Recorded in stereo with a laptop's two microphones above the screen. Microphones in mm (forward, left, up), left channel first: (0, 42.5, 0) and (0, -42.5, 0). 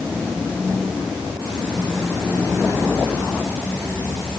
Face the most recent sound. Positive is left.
No sound to turn to.